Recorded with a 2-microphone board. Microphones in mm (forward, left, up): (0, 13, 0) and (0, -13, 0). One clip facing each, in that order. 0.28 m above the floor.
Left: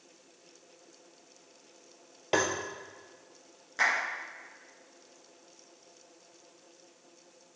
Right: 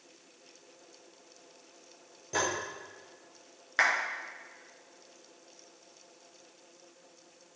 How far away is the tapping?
About 2 m.